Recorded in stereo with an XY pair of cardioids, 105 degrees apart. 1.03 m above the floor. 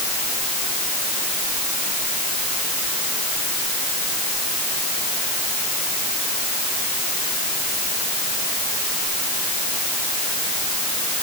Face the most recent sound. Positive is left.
No sound to turn to.